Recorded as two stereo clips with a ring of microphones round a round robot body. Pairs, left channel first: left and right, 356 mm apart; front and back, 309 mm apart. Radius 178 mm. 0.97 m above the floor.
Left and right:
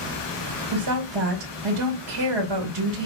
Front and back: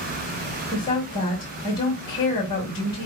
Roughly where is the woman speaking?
Right.